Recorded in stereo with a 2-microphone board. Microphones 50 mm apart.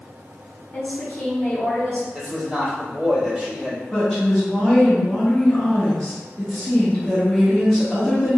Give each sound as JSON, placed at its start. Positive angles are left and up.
{"t": 0.7, "sound": "a woman speaking", "side_deg": 30, "distance_m": 1.1}
{"t": 2.1, "sound": "a man speaking", "side_deg": -5, "distance_m": 1.8}
{"t": 3.9, "sound": "a woman speaking", "side_deg": 5, "distance_m": 0.9}